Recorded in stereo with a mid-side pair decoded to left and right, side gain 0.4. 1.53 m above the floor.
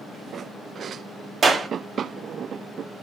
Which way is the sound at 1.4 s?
45° right.